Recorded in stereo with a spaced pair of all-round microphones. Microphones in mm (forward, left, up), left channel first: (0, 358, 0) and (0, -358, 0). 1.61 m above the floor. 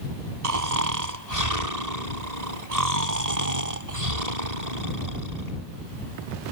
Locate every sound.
0.4 s snoring: 60° right (ahead or behind)